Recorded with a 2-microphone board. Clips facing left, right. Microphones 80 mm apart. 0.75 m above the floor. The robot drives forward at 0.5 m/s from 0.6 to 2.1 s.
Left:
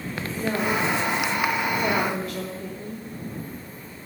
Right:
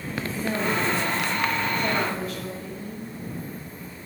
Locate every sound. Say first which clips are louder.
0.4 s a woman speaking: left 2 dB; 40° left (ahead or behind), 1.9 m; by 3.1 s 50° left (ahead or behind), 1.5 m